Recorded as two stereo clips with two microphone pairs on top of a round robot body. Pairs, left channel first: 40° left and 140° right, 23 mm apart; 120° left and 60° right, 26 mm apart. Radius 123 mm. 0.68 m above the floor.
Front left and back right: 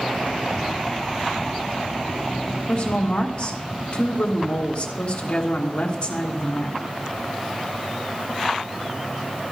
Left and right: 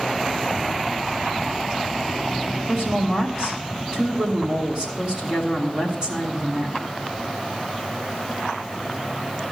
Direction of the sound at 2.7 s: 5° right.